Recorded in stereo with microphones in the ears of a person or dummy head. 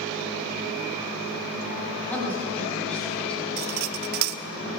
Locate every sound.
2.1 s a woman speaking: 10° left (ahead or behind), 6.5 m; by 3.5 s 5° left (ahead or behind), 7 m
3.6 s cutlery clinking: 55° right (ahead or behind), 0.7 m